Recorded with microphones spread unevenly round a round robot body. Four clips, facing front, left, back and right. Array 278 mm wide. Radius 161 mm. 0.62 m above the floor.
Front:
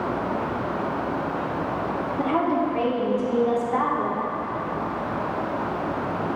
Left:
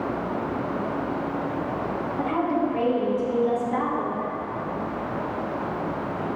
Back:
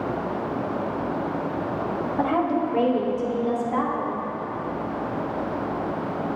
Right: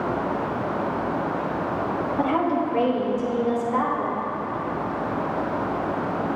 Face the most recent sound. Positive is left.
turn(degrees=160)